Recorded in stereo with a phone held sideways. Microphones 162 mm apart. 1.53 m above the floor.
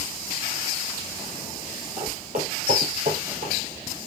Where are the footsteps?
45° right (ahead or behind), 2.5 m; by 3.5 s 60° right (ahead or behind), 3 m.